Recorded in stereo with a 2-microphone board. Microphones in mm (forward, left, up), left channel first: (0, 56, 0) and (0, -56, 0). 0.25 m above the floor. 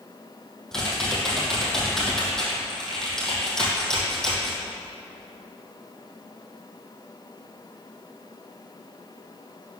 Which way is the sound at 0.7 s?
5° left (ahead or behind).